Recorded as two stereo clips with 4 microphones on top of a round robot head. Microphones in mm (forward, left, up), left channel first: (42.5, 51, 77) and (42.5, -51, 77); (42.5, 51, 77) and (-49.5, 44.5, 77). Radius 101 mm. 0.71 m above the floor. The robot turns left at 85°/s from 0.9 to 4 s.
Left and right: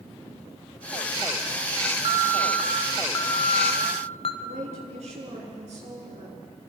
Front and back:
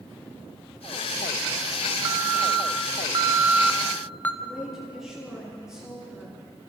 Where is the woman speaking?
90° right, 9.5 m.